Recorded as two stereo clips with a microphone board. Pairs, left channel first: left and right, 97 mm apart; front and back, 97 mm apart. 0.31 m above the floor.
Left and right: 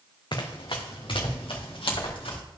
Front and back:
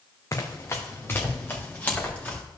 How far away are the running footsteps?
About 1.3 m.